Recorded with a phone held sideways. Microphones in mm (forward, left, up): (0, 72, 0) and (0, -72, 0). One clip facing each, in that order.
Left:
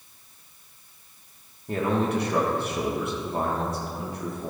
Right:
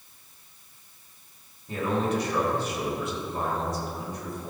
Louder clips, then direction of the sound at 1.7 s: Left 2 dB; 60° left (ahead or behind).